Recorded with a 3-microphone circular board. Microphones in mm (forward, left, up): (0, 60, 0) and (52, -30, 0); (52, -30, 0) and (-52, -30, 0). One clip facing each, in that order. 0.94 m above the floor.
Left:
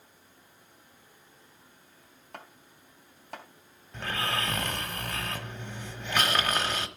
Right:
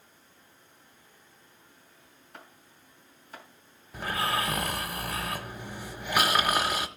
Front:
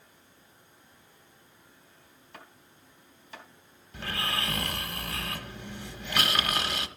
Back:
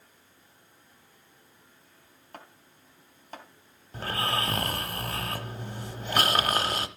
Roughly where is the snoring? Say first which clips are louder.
Right 3 dB, back 4 dB; behind right.